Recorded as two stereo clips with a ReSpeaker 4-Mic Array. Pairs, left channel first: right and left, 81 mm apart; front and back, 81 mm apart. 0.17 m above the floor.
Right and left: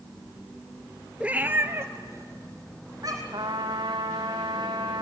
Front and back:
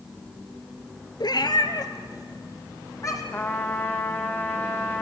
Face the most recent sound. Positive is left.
turn(degrees=65)